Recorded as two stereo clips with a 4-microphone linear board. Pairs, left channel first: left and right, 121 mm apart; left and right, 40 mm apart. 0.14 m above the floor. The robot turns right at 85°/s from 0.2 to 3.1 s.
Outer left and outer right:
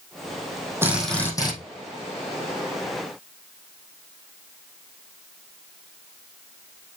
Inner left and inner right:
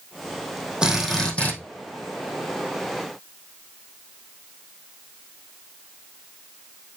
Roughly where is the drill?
Ahead.